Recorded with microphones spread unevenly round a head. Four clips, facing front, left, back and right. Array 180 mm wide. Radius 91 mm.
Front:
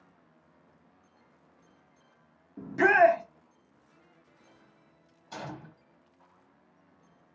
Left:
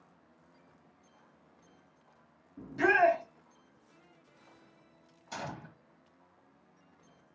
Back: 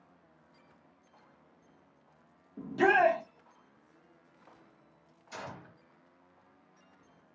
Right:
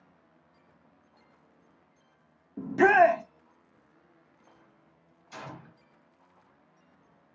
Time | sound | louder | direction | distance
2.6 | a shout | right 6 dB, front 4 dB | 85° right | 0.5 m
5.3 | a gunshot | left 2 dB, front 3 dB | 55° left | 0.9 m